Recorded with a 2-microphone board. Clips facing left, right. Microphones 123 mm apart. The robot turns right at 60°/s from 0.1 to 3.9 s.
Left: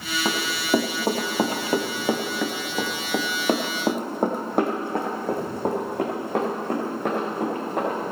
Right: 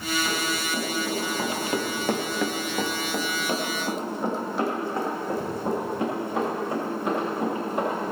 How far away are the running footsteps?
About 3 m.